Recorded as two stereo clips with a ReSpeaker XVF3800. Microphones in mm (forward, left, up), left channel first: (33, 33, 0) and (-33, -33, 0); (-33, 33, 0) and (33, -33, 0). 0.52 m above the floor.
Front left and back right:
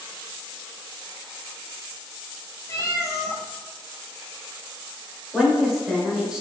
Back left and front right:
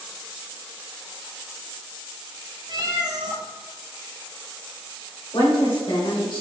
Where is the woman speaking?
145° left, 1.6 m.